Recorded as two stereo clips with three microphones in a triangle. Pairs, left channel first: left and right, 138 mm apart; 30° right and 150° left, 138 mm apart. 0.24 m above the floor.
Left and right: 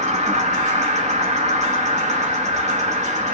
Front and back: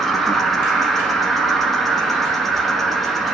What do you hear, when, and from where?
0.0 s an insect: 120° right, 0.8 m